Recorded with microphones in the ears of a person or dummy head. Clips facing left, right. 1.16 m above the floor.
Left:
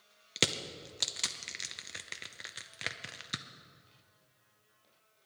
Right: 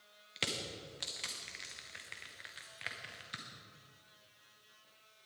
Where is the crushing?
50° left (ahead or behind), 0.7 m.